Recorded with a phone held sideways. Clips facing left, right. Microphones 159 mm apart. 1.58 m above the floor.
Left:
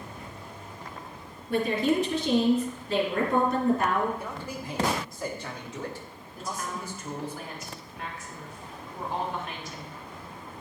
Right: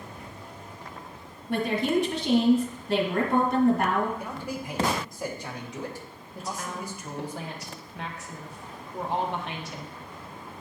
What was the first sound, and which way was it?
A woman speaking, 70° right (ahead or behind).